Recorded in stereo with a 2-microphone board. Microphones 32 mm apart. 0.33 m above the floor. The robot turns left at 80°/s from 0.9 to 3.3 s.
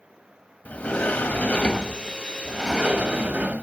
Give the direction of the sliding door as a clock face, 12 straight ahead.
8 o'clock.